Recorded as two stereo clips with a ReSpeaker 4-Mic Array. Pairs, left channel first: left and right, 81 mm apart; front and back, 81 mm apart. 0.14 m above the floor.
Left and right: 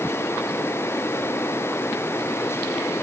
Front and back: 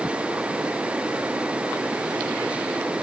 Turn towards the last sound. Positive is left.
No sound to turn to.